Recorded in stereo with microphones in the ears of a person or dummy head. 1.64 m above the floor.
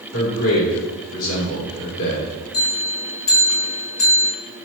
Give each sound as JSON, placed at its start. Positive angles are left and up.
{"t": 0.1, "sound": "a man speaking", "side_deg": 80, "distance_m": 3.0}
{"t": 2.5, "sound": "a bell", "side_deg": 60, "distance_m": 3.5}